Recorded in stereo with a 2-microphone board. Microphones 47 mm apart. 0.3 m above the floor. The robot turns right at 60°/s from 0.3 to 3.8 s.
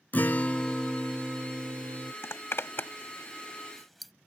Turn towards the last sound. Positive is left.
turn(degrees=0)  # may be behind; listen again after turning